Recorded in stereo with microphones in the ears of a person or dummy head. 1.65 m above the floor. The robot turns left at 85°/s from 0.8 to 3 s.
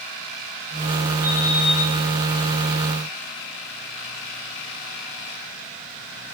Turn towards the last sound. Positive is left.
turn(degrees=75)